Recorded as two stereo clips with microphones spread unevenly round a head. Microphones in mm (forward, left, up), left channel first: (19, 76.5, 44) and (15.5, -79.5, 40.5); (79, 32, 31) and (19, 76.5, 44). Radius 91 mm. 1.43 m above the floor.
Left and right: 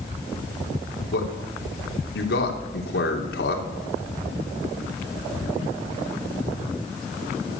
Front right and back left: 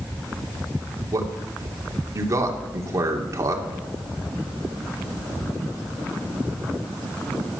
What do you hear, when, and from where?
1.1 s a man speaking: 105° left, 3.5 m